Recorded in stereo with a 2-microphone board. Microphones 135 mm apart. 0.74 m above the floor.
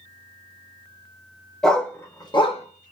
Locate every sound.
1.6 s a dog barking: 5° left (ahead or behind), 1.0 m; by 2.9 s 70° left (ahead or behind), 0.8 m